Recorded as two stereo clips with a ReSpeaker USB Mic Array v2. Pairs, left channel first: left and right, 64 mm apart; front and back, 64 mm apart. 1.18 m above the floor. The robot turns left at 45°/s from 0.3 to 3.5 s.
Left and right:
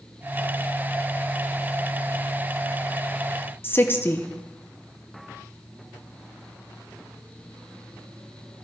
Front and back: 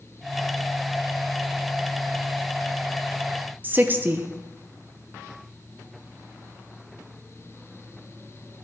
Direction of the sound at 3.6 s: 130° left.